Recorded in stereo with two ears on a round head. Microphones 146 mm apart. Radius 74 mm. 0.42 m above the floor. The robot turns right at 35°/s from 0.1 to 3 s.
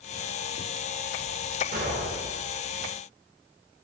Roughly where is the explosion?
Right.